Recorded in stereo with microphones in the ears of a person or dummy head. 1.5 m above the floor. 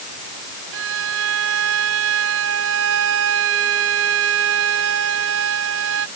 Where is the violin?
70° right (ahead or behind).